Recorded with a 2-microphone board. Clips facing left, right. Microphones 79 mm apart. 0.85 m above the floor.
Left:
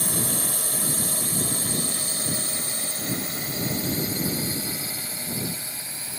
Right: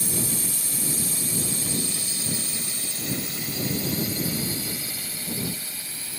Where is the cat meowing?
I don't hear a cat meowing.